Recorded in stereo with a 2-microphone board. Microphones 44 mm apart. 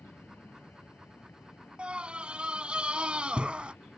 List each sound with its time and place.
0.0 s an aircraft: 55° left (ahead or behind)
1.8 s a scream: 25° right (ahead or behind)